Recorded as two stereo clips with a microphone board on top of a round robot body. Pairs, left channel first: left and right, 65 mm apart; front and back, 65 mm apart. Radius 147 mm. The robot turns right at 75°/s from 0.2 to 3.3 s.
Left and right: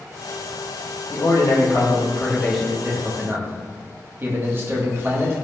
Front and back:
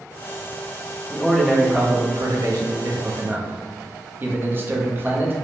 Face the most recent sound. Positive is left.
turn(degrees=-130)